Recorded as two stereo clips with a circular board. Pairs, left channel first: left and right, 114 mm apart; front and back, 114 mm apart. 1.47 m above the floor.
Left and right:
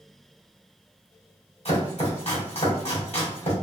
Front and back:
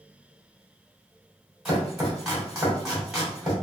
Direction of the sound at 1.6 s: 95° left.